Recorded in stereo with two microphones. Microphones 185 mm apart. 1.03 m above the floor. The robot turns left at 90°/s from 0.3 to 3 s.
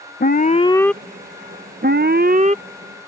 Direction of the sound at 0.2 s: 60° left.